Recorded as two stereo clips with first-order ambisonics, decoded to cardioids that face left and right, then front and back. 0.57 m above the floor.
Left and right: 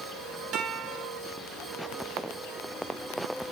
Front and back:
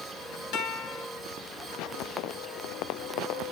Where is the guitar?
40° right, 3 m.